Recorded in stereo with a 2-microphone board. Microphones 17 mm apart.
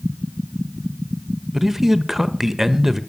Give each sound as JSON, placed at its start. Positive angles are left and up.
{"t": 1.5, "sound": "a man speaking", "side_deg": -20, "distance_m": 1.2}